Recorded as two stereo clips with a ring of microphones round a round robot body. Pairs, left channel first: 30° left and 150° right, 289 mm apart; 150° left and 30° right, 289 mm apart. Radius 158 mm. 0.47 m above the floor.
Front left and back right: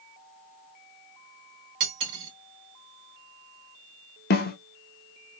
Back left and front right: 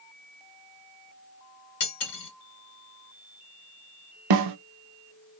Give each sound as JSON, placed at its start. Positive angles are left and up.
{"t": 1.8, "sound": "cutlery clinking", "azimuth_deg": -170, "distance_m": 1.6}
{"t": 4.3, "sound": "a snare drum", "azimuth_deg": -25, "distance_m": 0.6}